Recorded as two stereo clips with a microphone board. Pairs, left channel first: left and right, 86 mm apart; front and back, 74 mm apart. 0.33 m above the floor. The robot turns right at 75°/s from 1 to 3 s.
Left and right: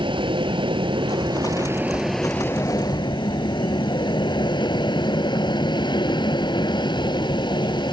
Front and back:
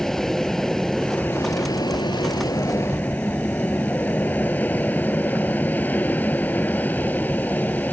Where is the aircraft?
85° right; by 7.9 s 65° left.